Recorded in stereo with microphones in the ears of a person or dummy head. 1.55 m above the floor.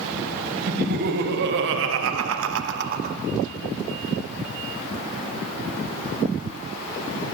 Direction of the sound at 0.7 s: 50° right (ahead or behind).